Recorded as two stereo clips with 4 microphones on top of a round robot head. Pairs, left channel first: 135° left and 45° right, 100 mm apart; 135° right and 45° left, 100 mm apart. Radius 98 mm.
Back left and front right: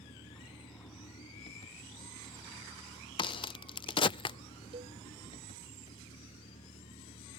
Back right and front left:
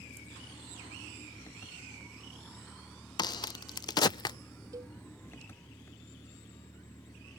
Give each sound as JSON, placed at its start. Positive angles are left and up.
{"t": 0.0, "sound": "an engine running", "azimuth_deg": 155}
{"t": 3.2, "sound": "a crack", "azimuth_deg": 175}
{"t": 4.7, "sound": "a cowbell", "azimuth_deg": -15}